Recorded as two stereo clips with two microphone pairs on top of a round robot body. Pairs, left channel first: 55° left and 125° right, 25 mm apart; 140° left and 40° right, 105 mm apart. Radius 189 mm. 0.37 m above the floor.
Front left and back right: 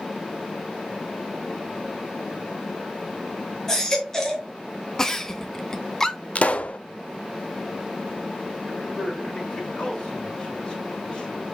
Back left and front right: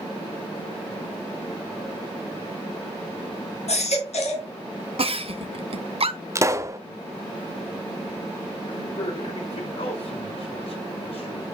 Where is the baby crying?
130° left, 2.5 m.